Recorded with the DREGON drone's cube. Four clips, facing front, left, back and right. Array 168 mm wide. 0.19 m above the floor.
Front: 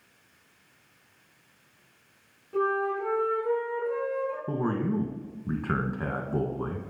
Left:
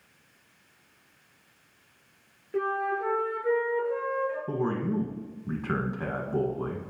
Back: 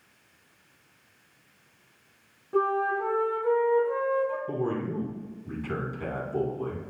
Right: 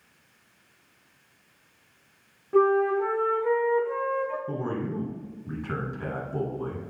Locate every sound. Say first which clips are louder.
2.5 s a flute: right 8 dB, back 2 dB; 110° right, 2.5 m
4.5 s a man speaking: left 2 dB, front 1 dB; 25° left, 1.5 m